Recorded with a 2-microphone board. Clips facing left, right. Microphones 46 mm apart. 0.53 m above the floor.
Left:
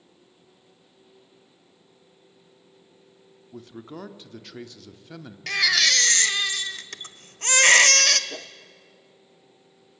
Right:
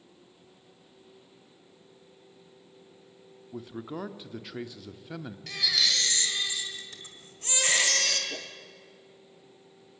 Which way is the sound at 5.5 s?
80° left.